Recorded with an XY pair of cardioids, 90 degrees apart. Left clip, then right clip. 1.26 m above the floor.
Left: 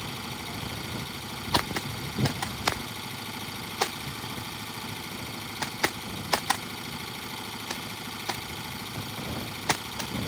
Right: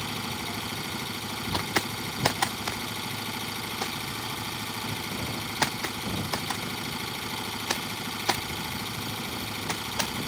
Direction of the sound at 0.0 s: 30° right.